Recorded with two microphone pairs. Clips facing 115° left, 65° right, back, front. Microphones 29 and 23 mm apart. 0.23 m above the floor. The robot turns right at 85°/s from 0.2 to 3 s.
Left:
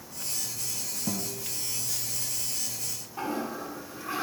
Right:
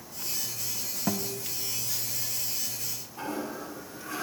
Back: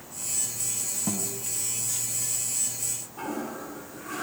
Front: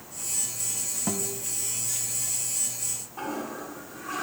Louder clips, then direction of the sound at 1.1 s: Right 3 dB, front 2 dB; 65° right.